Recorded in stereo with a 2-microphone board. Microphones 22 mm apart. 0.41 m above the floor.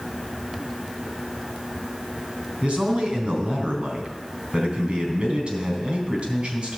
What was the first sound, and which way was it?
A man speaking, 50° right (ahead or behind).